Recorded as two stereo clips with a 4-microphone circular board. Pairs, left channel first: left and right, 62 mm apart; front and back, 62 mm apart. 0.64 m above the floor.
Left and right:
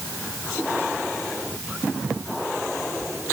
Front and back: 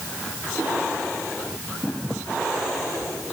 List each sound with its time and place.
Only background noise.